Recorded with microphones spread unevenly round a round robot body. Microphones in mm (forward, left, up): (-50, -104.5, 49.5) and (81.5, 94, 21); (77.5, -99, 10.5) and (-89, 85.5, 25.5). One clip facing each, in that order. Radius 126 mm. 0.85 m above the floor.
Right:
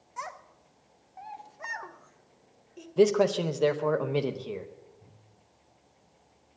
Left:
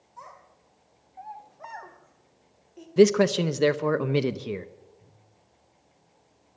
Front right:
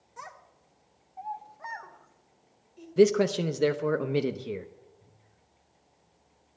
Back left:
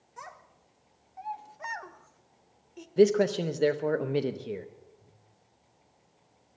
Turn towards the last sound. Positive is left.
turn(degrees=25)